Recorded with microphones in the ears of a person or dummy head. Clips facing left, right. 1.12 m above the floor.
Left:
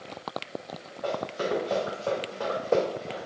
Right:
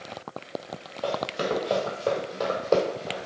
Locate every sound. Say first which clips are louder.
1.0 s running footsteps: right 2 dB; 35° right (ahead or behind), 1.4 m; by 3.3 s 10° left (ahead or behind), 1.3 m